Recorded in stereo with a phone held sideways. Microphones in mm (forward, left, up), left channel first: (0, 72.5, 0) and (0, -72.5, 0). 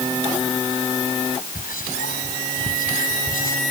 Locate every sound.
1.6 s whispering: 80° left